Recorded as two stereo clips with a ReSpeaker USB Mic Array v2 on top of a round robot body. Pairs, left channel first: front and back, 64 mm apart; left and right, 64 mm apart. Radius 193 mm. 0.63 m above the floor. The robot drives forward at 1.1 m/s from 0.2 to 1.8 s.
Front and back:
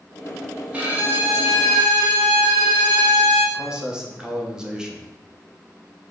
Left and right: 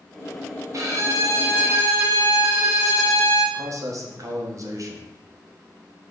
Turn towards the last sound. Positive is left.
turn(degrees=-105)